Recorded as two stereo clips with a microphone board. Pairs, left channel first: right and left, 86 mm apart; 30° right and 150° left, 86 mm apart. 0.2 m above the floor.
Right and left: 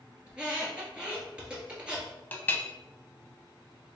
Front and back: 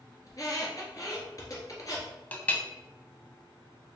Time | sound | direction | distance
0.3 | a squeak | 15° left | 1.6 m
2.3 | a clink | 65° right | 0.6 m